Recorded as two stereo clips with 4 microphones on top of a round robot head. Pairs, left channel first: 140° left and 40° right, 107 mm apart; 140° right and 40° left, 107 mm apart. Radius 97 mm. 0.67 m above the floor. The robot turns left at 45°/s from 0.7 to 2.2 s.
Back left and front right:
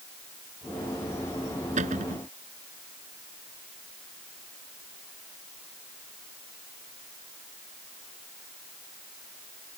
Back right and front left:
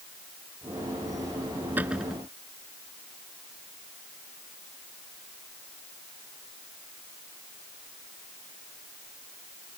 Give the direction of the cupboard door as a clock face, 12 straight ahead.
1 o'clock.